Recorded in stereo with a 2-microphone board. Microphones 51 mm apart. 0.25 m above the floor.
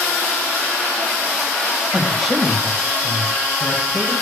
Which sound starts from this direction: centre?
A man speaking, at 1.9 s.